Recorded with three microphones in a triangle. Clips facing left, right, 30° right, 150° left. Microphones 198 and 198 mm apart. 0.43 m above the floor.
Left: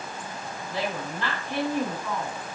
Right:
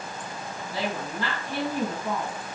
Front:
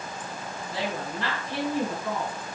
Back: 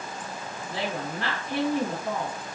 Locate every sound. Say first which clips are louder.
0.7 s a woman speaking: even, even; 170° right, 3 m